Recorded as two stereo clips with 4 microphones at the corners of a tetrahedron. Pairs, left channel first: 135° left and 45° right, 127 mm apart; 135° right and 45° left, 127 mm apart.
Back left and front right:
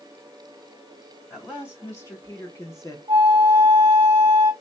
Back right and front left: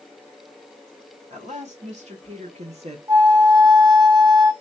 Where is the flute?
10° right, 1.3 m.